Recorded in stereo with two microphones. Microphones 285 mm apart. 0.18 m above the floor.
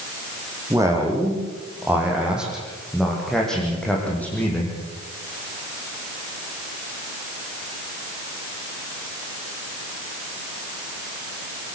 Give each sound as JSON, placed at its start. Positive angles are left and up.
{"t": 0.7, "sound": "a man speaking", "side_deg": -10, "distance_m": 9.0}